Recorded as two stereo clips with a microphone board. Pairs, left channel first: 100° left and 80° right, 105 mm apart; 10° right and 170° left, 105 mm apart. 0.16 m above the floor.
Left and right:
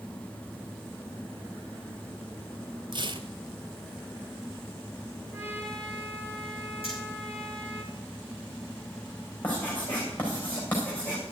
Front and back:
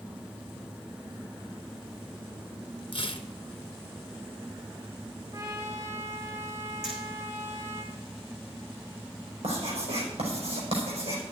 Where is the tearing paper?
45° right, 0.9 m.